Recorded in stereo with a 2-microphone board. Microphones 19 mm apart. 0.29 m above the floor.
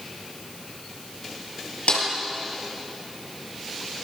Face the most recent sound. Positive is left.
turn(degrees=80)